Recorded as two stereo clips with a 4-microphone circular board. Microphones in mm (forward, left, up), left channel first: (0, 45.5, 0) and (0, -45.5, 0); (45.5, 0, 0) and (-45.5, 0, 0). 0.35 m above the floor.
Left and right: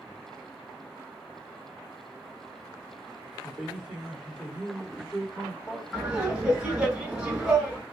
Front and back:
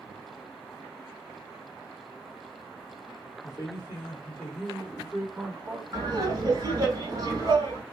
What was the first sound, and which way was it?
A man speaking, 20° right.